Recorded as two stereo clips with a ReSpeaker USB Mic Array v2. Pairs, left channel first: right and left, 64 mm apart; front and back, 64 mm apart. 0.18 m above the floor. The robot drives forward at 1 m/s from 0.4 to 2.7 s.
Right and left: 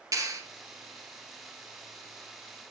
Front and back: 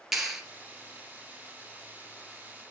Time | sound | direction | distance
0.1 | a clap | 95° left | 3 m